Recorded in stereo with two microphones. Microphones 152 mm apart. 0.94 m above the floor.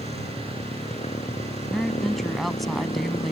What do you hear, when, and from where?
0.0 s a motorcycle: 45° left (ahead or behind)
1.7 s a woman speaking: centre (ahead or behind)